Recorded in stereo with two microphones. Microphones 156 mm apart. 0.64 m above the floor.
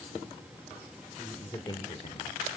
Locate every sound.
1.2 s a man speaking: 10° left (ahead or behind), 1.9 m; by 2.4 s 55° left (ahead or behind), 1.7 m